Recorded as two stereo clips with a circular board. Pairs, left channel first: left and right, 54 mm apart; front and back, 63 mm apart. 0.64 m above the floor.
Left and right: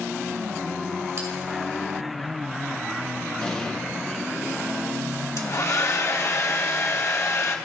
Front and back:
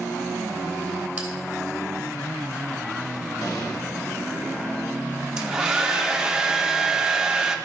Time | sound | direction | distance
1.2 | a bell | 110° right | 2.5 m
3.4 | an explosion | 10° left | 1.9 m
5.4 | a hair dryer | 105° left | 0.8 m